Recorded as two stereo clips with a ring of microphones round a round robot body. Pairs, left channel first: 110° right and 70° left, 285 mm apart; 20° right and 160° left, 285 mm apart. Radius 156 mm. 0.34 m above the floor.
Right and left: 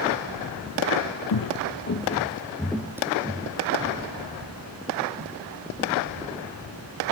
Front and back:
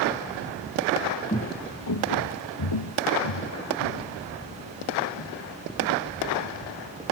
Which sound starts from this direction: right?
Footsteps, at 1.3 s.